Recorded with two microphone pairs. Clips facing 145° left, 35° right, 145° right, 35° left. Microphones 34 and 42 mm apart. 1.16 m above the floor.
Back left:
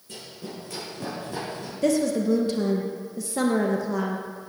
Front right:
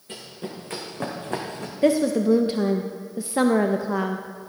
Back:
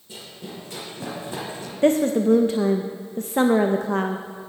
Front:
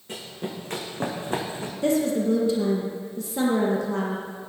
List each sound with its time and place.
0.1 s running footsteps: 10° left, 4 m; by 1.7 s 20° right, 3 m
1.8 s a woman speaking: 105° right, 0.6 m